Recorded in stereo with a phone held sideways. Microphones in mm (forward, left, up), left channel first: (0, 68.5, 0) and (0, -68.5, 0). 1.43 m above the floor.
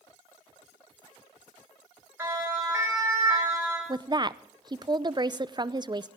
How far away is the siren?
About 7.5 m.